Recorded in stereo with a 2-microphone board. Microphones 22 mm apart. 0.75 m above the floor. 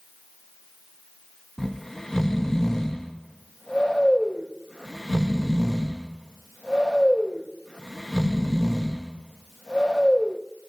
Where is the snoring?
15° left (ahead or behind), 0.7 m.